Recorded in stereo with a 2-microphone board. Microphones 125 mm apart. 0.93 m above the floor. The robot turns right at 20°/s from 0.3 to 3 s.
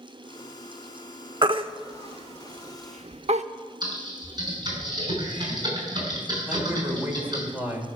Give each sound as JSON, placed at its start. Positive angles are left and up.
{"t": 1.4, "sound": "a baby crying", "side_deg": -40, "distance_m": 0.8}
{"t": 3.8, "sound": "typing on a keyboard", "side_deg": -35, "distance_m": 6.0}
{"t": 6.5, "sound": "a man speaking", "side_deg": -15, "distance_m": 3.5}